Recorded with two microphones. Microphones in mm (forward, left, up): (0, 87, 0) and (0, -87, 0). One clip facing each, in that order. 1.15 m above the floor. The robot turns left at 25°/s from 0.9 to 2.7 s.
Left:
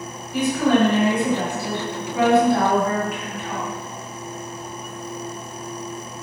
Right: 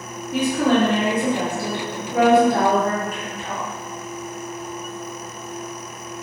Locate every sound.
0.3 s a woman speaking: 90° right, 1.1 m; by 3.7 s 135° right, 1.1 m